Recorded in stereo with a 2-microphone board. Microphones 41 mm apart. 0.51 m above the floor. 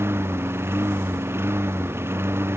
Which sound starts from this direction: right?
A lawn mower, at 0.0 s.